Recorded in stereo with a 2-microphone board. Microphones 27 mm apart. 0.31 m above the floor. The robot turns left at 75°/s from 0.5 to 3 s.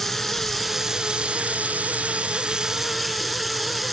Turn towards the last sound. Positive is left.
turn(degrees=-175)